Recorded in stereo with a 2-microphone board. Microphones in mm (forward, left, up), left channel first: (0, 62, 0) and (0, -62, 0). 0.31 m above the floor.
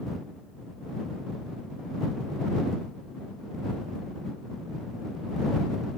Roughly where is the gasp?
I don't hear a gasp.